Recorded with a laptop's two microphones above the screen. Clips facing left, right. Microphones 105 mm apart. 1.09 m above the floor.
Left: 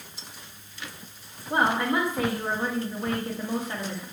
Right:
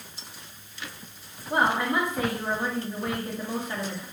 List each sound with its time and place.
1.5 s a woman speaking: 5° left (ahead or behind), 1.6 m